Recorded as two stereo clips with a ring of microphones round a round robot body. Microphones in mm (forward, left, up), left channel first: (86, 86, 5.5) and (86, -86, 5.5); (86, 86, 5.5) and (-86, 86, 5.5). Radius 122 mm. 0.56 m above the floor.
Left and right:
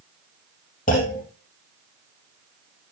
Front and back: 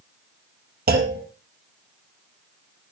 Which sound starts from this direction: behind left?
A clunk, at 0.9 s.